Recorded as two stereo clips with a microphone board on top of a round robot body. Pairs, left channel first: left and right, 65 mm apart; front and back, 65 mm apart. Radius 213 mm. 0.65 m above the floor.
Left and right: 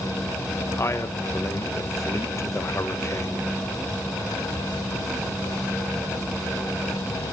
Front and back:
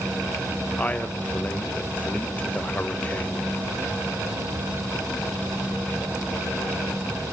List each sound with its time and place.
0.8 s a man speaking: 65° left, 1.6 m